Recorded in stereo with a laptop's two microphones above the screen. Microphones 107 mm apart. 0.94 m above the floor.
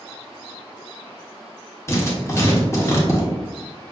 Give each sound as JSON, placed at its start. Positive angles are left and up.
{"t": 1.9, "sound": "writing", "side_deg": 25, "distance_m": 0.8}